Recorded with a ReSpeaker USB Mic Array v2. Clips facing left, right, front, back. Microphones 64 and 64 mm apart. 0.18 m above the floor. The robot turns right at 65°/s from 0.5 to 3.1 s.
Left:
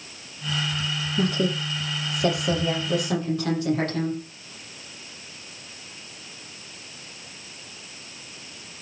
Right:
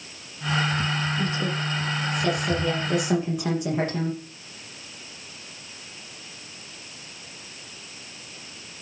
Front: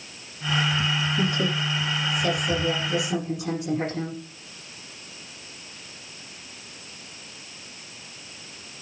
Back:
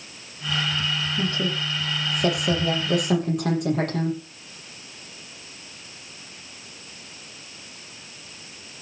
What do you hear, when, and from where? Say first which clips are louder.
1.2 s a woman speaking: left 2 dB, front 1 dB; 70° left, 7.5 m; by 4.2 s 165° right, 7.5 m